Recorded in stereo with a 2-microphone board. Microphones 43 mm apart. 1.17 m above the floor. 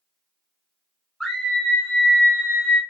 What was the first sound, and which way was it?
A scream, 10° left (ahead or behind).